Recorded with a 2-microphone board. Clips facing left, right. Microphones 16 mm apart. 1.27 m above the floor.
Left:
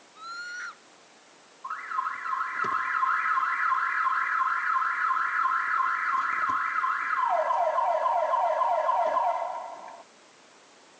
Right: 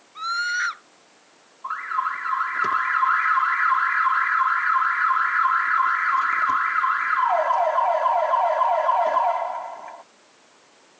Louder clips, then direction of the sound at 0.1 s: Right 13 dB; 45° right (ahead or behind).